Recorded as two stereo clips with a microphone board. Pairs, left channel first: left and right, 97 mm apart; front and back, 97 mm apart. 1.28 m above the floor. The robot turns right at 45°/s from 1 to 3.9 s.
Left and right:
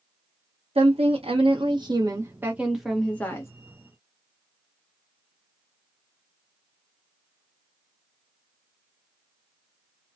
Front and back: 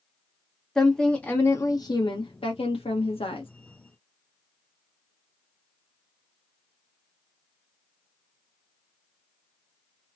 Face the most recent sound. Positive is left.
turn(degrees=45)